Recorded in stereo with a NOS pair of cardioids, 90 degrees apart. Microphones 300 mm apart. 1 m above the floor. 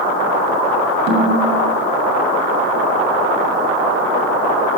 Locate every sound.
1.1 s a snare drum: 70° right, 7 m